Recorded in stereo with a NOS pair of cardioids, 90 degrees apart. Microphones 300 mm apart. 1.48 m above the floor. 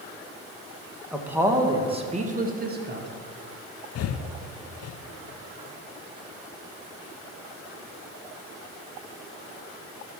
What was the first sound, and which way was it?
A man speaking, 5° right.